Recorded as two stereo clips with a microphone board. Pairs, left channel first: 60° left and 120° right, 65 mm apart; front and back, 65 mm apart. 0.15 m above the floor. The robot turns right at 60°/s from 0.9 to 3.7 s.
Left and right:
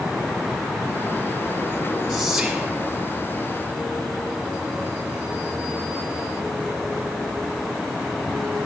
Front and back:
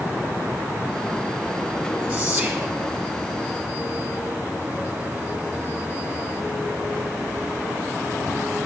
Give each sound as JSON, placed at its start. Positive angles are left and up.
{"t": 2.1, "sound": "whispering", "azimuth_deg": -175, "distance_m": 1.0}